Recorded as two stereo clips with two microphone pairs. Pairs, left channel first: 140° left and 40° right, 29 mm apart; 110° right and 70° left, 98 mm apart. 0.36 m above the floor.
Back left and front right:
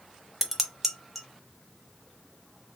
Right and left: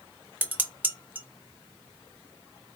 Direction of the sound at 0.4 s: 20° left.